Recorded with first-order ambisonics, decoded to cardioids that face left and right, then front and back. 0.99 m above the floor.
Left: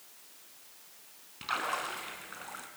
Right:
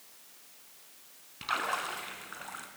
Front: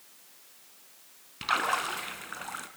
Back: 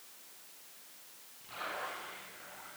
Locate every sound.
1.4 s a splash: 5° right, 2.5 m